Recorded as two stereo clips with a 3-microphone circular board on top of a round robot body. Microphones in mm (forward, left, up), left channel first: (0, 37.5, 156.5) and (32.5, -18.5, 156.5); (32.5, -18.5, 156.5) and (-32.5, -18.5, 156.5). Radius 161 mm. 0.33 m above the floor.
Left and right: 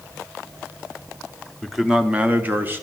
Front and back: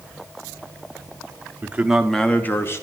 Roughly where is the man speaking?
Behind right.